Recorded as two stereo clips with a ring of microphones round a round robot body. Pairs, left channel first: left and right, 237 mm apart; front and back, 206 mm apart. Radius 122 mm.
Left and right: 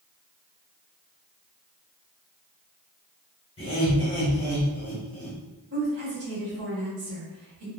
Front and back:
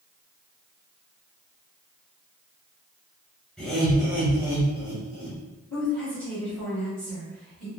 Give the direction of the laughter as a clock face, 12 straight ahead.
9 o'clock.